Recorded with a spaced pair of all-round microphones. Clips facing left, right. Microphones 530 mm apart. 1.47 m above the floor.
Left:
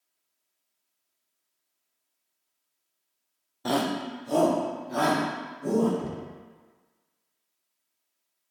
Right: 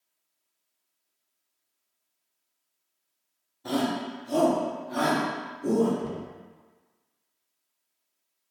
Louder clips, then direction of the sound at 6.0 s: Right 1 dB; 65° left (ahead or behind).